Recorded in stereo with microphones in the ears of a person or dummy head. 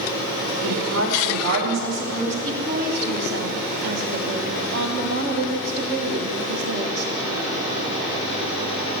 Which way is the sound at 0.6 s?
85° right.